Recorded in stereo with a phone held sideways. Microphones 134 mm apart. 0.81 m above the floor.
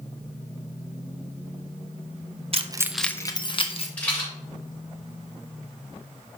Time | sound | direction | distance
2.5 | keys jangling | 50° right (ahead or behind) | 0.5 m
4.0 | a rattle | 10° left (ahead or behind) | 3 m